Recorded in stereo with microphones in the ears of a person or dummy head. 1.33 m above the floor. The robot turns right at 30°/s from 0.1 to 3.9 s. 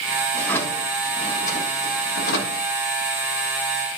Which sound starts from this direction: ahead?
A drawer, at 0.3 s.